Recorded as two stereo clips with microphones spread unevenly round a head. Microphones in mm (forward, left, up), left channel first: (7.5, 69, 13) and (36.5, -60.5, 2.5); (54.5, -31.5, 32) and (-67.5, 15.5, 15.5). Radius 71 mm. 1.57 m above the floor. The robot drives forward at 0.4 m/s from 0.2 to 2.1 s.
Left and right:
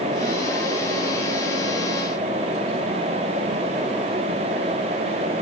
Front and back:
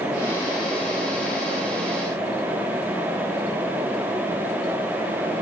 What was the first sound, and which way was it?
Only background noise.